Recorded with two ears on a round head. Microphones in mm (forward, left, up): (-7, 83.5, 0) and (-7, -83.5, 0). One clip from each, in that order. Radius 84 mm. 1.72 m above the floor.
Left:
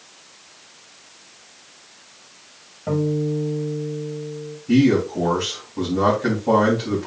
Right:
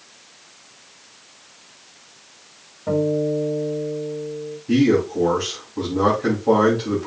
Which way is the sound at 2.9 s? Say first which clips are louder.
Right 3 dB; centre (ahead or behind).